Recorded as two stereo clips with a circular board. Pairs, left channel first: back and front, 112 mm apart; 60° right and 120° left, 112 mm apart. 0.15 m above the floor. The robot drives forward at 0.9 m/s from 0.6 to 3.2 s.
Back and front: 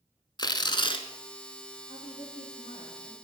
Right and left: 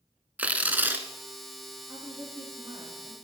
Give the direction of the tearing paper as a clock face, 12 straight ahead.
6 o'clock.